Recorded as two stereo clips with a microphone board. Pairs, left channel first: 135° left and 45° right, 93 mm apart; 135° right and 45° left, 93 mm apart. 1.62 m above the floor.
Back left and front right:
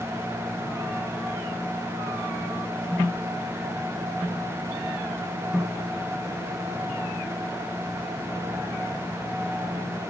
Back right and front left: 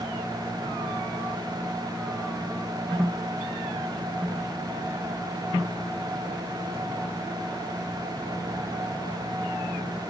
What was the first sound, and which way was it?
Only background noise.